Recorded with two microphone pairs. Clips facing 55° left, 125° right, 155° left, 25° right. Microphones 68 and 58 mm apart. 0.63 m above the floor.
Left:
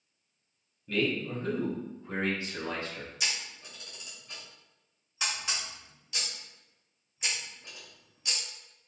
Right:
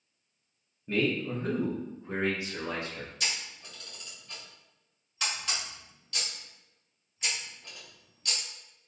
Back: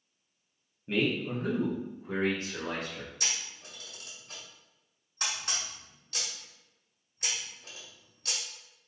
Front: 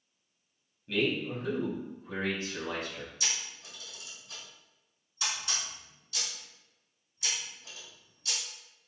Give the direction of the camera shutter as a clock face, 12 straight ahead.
7 o'clock.